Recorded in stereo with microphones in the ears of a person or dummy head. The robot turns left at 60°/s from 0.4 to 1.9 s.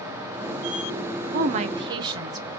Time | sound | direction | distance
1.3 | a woman speaking | 120° right | 0.6 m